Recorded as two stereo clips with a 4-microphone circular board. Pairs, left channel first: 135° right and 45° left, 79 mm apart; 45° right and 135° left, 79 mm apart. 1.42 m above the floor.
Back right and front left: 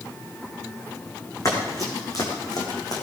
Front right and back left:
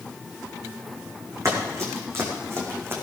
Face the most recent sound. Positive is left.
turn(degrees=-165)